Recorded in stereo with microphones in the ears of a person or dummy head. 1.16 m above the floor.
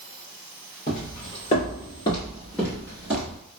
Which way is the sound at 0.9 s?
45° left (ahead or behind).